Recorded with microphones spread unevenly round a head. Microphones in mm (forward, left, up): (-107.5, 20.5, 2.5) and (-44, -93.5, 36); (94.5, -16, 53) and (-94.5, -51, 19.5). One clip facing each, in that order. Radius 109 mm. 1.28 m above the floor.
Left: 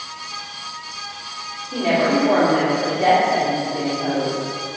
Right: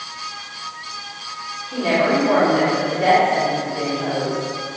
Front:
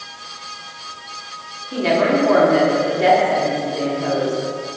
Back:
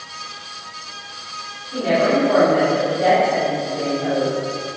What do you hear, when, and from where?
1.7 s a woman speaking: 45° left, 3.5 m